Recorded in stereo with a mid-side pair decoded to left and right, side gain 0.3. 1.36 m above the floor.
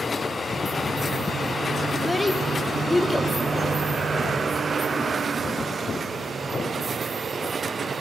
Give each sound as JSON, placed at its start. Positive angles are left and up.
{"t": 1.9, "sound": "a child speaking", "azimuth_deg": 25, "distance_m": 0.7}